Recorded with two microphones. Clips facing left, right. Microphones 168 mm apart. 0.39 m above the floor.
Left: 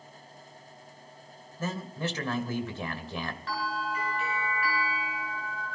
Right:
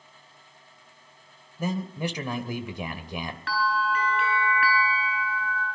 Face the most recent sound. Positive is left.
turn(degrees=-75)  # may be behind; listen again after turning